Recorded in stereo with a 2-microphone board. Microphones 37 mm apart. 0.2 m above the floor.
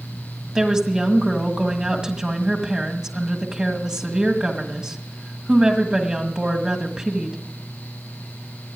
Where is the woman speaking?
20° right (ahead or behind), 1.5 m.